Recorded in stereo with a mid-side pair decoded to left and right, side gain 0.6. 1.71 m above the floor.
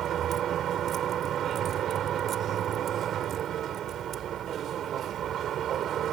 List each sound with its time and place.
0.0 s a vehicle: 50° right